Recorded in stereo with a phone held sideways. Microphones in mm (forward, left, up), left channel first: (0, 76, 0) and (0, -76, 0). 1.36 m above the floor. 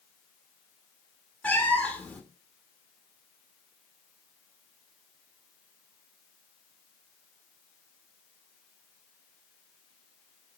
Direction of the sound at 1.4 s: 10° left (ahead or behind).